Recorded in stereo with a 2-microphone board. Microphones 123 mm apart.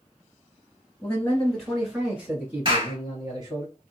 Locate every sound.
1.0 s a man speaking: 15° left (ahead or behind), 1.7 m; by 3.6 s 35° right (ahead or behind), 2 m
2.6 s a clap: 40° right (ahead or behind), 1.6 m